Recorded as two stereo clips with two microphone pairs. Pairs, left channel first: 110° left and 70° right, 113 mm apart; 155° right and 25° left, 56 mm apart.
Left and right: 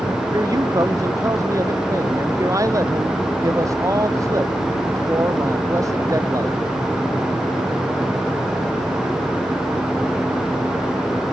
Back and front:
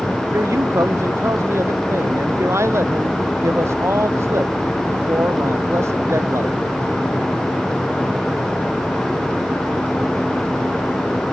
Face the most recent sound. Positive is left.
turn(degrees=-10)